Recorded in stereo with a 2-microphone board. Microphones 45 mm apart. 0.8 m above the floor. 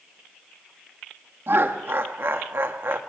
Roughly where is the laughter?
Right.